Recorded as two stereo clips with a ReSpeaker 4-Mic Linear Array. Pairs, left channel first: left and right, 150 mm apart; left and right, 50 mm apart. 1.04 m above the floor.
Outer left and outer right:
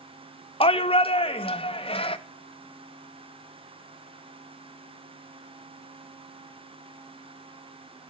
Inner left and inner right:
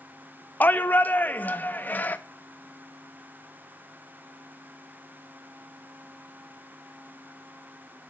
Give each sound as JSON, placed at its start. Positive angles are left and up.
{"t": 0.6, "sound": "a shout", "side_deg": 40, "distance_m": 0.5}